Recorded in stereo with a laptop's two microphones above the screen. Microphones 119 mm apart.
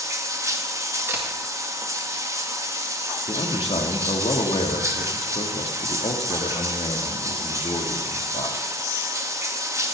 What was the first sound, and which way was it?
Running water, 25° right (ahead or behind).